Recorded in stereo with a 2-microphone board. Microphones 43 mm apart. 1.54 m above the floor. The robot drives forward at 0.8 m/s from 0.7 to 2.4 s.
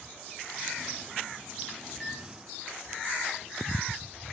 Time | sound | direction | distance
1.9 | a microwave | 5° left (ahead or behind) | 3.5 m